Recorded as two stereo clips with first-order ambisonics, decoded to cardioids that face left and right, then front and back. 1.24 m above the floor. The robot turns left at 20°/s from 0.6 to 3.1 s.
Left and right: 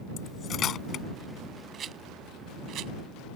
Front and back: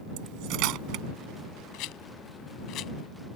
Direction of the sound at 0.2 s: 150° left.